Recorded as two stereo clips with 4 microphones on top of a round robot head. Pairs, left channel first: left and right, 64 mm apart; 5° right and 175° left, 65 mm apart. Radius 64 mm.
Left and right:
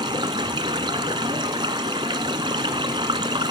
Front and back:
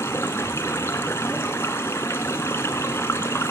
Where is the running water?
70° right, 1.1 m.